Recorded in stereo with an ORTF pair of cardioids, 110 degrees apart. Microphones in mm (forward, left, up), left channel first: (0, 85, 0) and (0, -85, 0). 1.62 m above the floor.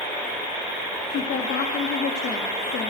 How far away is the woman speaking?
About 3.5 m.